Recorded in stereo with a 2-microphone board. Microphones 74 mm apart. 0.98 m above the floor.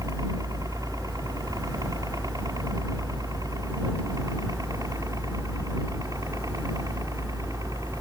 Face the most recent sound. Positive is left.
turn(degrees=-50)  # may be behind; listen again after turning